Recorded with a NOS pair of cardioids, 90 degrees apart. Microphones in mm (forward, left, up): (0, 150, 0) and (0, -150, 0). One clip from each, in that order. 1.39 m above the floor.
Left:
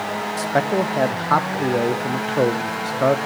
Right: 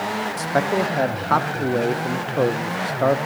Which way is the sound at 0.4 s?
5° left.